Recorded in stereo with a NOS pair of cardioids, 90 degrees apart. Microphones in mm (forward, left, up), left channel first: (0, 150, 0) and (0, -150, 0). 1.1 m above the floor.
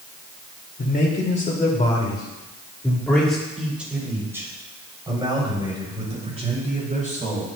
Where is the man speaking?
30° left, 4 m; by 7.5 s 25° right, 8 m.